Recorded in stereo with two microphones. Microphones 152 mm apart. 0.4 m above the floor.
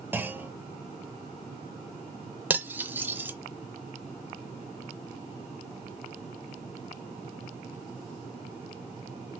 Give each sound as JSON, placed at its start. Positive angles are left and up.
{"t": 0.1, "sound": "a clunk", "side_deg": -15, "distance_m": 0.6}
{"t": 2.5, "sound": "cutlery clinking", "side_deg": -15, "distance_m": 0.6}